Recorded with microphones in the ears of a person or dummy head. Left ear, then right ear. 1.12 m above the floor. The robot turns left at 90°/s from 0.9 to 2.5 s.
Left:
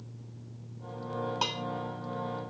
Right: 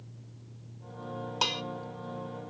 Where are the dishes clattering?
15° right (ahead or behind), 0.7 m; by 1.6 s 35° right (ahead or behind), 0.7 m.